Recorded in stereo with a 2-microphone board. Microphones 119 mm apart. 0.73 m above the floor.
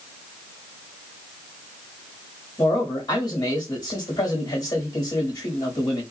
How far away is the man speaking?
About 1.3 m.